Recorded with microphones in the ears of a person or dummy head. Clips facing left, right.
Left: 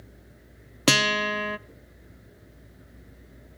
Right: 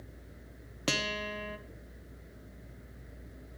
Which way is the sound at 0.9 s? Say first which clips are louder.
Left 10 dB; 60° left (ahead or behind).